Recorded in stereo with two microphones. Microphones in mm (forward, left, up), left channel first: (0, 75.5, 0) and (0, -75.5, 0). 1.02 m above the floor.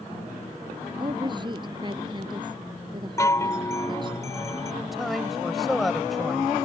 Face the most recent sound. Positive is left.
turn(degrees=0)  # may be behind; listen again after turning